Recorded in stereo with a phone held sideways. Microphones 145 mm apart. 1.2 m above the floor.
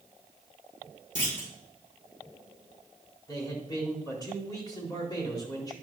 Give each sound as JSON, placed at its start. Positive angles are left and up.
{"t": 1.1, "sound": "a clunk", "side_deg": 60, "distance_m": 2.5}
{"t": 3.3, "sound": "a man speaking", "side_deg": 25, "distance_m": 4.0}